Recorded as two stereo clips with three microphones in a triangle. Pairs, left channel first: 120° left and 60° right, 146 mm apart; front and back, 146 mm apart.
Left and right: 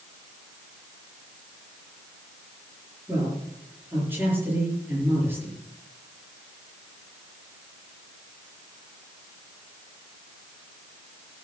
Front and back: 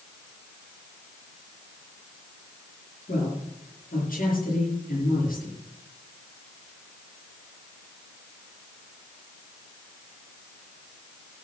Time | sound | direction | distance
3.1 | a man speaking | 15° left | 6.5 m